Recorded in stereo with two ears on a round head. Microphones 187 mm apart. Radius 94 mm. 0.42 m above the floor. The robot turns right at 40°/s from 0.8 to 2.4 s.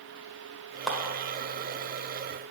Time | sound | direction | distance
0.9 | a clap | centre (ahead or behind) | 1.2 m